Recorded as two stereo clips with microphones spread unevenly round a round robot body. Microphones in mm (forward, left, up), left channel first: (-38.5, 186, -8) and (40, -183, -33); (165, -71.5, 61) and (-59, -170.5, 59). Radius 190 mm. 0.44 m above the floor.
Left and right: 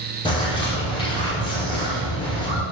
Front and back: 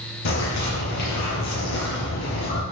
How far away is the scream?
I don't hear a scream.